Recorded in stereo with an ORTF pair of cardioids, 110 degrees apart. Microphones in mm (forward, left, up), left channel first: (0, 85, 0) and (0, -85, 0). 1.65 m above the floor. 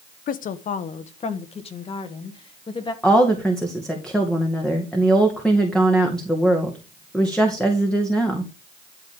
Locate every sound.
0.3 s a woman speaking: 55° left, 1.1 m; by 2.9 s 30° left, 2.5 m
3.0 s a woman speaking: 5° left, 1.9 m